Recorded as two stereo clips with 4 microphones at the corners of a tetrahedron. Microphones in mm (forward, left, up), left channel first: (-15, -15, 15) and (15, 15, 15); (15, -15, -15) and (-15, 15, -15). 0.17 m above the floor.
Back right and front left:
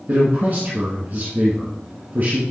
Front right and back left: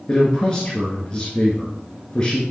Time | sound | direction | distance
0.1 | a man speaking | 20° left | 1.7 m